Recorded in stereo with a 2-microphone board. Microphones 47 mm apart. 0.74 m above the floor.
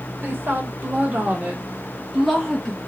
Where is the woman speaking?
50° right (ahead or behind), 1.3 m; by 2.8 s 20° left (ahead or behind), 0.7 m.